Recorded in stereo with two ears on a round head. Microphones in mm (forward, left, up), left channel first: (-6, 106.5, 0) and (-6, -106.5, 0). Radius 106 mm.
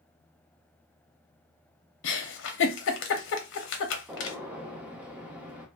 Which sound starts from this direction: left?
A giggle, at 2.0 s.